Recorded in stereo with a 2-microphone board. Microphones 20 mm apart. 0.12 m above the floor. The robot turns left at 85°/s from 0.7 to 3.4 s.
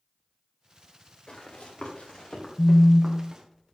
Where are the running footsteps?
45° left (ahead or behind), 4.5 m; by 3.4 s 40° right (ahead or behind), 3.5 m.